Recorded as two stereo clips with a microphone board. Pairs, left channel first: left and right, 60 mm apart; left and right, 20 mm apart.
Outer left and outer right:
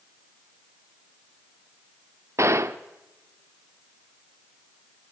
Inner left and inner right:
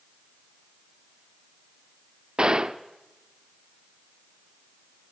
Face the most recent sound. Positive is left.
turn(degrees=-50)  # may be behind; listen again after turning